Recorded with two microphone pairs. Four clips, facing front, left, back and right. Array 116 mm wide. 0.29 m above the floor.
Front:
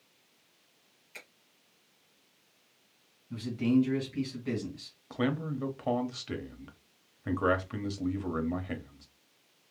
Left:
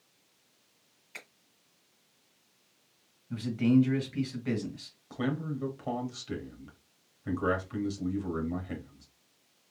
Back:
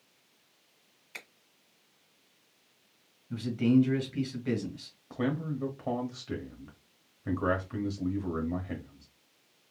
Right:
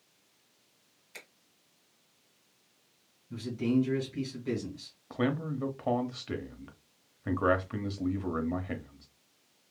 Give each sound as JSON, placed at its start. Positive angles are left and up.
{"t": 1.1, "sound": "a finger snap", "azimuth_deg": 170, "distance_m": 1.6}
{"t": 3.3, "sound": "a man speaking", "azimuth_deg": 130, "distance_m": 1.9}
{"t": 5.1, "sound": "a man speaking", "azimuth_deg": -60, "distance_m": 0.9}